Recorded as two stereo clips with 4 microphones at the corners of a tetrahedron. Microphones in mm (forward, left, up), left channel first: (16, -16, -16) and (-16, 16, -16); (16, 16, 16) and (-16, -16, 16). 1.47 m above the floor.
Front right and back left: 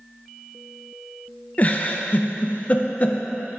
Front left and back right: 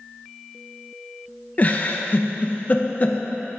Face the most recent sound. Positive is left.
turn(degrees=0)